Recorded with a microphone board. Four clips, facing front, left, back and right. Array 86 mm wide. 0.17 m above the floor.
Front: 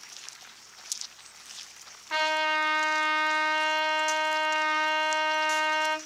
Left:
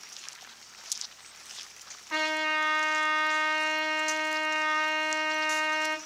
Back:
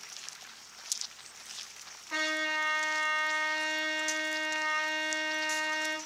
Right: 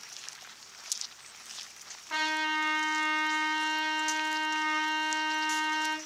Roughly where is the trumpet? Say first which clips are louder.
Left 1 dB, front 7 dB; ahead.